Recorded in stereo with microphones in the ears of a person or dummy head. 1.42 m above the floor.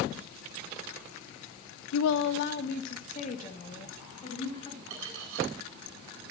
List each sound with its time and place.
1.9 s a woman speaking: 85° left, 0.7 m; by 4.8 s 30° left (ahead or behind), 4 m
4.9 s cutlery clinking: 65° right (ahead or behind), 7.5 m